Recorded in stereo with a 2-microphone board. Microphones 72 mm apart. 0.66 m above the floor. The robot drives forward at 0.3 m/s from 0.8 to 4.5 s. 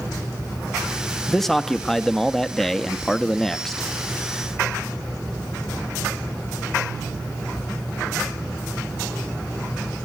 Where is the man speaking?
5° left (ahead or behind), 0.9 m.